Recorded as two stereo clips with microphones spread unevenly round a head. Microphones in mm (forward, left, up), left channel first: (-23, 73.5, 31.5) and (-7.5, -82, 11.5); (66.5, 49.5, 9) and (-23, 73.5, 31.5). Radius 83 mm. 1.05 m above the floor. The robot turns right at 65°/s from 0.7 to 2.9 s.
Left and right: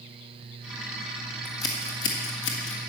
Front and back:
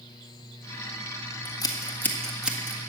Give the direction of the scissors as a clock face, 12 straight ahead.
12 o'clock.